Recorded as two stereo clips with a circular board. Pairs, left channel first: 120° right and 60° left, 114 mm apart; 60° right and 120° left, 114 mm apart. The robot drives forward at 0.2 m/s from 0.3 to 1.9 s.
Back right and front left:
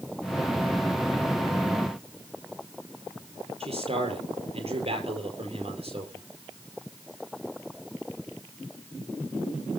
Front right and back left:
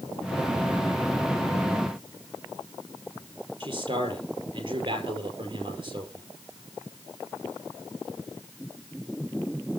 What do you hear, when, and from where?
3.6 s a man speaking: 85° left, 5 m